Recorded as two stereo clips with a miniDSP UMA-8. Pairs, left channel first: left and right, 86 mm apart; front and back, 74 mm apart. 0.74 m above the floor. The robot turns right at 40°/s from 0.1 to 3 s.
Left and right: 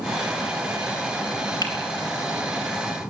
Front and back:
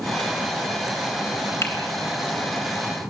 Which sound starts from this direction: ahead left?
A finger snap, at 1.6 s.